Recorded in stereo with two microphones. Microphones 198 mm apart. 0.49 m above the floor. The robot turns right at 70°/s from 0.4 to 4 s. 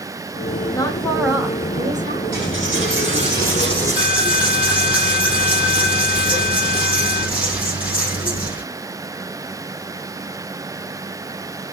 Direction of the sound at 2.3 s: 125° right.